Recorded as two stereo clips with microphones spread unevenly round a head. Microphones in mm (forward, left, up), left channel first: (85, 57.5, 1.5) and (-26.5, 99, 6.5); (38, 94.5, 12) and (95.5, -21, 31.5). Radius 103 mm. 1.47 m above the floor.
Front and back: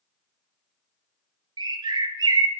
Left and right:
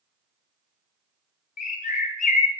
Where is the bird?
120° left, 0.6 m.